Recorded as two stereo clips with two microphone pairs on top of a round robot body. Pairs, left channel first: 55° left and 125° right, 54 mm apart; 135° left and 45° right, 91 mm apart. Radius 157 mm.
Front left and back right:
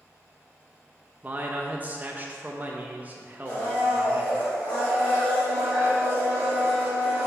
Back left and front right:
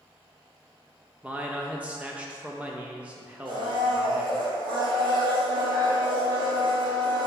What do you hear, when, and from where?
1.2 s a man speaking: 115° right, 0.8 m
3.5 s a blender: 10° right, 2.0 m